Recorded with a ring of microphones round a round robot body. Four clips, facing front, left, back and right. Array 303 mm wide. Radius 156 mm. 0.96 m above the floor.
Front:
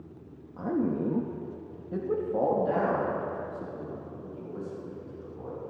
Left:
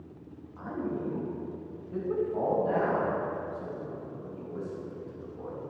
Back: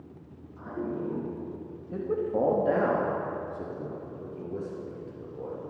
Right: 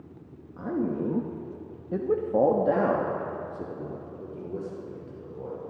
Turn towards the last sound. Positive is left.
turn(degrees=-140)